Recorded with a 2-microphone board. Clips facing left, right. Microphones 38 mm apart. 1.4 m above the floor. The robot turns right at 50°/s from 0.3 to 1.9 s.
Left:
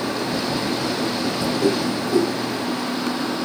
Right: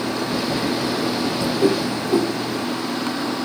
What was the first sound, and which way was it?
A whoosh, 25° right (ahead or behind).